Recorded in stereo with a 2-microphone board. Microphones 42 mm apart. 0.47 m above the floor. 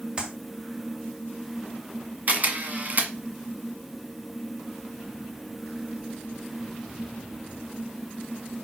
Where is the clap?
25° right (ahead or behind), 2.5 m.